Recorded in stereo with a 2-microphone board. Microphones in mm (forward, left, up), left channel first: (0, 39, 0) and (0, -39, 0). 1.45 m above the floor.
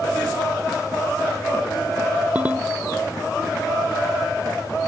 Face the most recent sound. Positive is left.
turn(degrees=-20)  # may be behind; listen again after turning